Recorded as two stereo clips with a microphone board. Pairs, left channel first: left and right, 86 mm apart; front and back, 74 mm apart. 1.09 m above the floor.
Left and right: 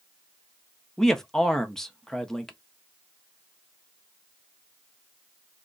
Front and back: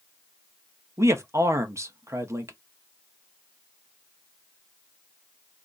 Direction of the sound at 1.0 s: 170° left.